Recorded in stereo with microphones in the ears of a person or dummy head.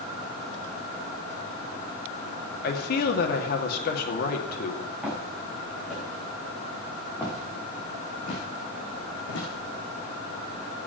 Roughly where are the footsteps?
Centre.